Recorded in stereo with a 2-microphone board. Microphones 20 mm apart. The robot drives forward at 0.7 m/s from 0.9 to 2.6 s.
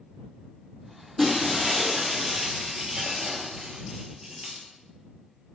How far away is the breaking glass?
About 2.5 m.